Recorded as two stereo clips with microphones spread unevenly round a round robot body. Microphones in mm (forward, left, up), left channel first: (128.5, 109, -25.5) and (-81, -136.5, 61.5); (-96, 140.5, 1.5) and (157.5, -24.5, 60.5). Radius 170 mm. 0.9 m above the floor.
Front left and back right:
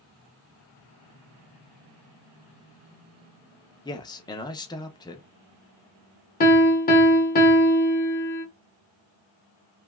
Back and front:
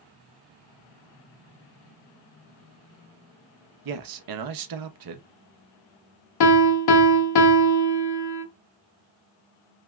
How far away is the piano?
About 0.6 m.